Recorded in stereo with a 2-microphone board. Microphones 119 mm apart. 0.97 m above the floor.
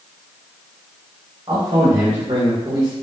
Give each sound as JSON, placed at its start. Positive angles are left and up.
{"t": 1.5, "sound": "a man speaking", "side_deg": -40, "distance_m": 1.6}